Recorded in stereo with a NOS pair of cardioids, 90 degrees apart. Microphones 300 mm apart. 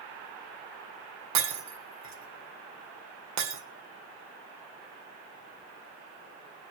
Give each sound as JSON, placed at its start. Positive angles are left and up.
{"t": 1.4, "sound": "breaking glass", "azimuth_deg": -65, "distance_m": 2.0}